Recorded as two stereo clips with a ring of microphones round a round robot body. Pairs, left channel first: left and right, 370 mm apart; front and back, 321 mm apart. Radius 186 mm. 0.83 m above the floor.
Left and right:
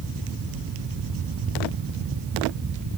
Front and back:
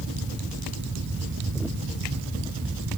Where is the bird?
No bird in this recording.